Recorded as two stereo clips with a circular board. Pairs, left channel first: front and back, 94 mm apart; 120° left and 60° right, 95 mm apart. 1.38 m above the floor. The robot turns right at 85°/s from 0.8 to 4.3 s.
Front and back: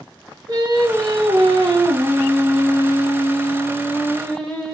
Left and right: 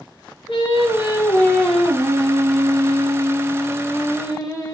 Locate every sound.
0.5 s singing: 135° left, 1.0 m; by 4.8 s 75° left, 1.0 m